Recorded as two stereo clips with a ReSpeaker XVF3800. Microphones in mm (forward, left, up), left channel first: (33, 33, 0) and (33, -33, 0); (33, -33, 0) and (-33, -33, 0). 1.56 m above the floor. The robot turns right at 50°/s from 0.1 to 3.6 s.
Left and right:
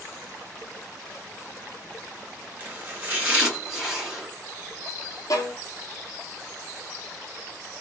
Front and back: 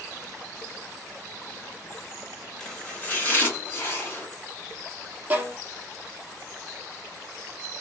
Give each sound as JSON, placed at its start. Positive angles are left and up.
{"t": 2.6, "sound": "chopping", "azimuth_deg": -65, "distance_m": 1.2}
{"t": 5.3, "sound": "a violin", "azimuth_deg": 115, "distance_m": 0.7}